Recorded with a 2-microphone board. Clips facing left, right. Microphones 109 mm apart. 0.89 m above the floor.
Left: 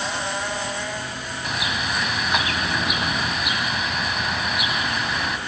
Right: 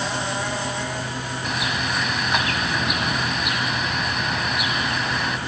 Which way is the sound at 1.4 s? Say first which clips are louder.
Even; centre (ahead or behind).